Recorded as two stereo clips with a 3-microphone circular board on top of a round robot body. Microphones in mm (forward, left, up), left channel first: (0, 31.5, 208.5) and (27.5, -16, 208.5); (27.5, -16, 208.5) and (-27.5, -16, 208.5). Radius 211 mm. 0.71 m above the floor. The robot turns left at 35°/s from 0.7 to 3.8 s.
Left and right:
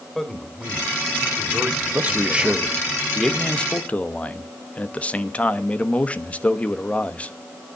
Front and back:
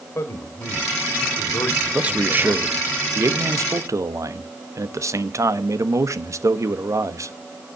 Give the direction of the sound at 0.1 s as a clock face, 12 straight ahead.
11 o'clock.